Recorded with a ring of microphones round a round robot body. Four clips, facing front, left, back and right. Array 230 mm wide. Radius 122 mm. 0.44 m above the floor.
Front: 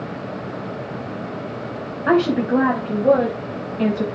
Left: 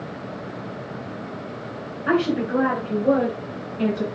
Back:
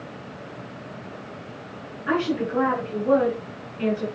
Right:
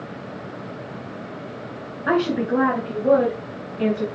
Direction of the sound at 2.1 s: 15° right.